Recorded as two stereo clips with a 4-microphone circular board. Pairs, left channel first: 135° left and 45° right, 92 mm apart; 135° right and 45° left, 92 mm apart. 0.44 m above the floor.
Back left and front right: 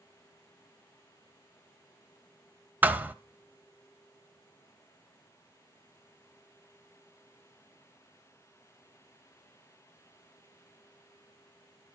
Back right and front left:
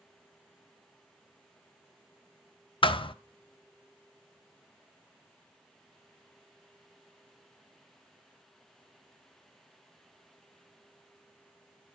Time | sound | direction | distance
2.8 | a thud | 115° right | 0.5 m